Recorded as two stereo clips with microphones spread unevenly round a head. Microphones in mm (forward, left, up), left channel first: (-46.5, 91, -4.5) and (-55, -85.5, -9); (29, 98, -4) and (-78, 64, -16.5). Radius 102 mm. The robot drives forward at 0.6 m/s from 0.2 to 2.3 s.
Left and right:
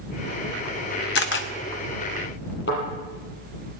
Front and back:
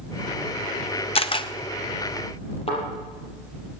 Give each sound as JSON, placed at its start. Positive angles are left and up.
{"t": 1.1, "sound": "a camera shutter", "azimuth_deg": 50, "distance_m": 0.8}
{"t": 2.7, "sound": "a thud", "azimuth_deg": 45, "distance_m": 6.5}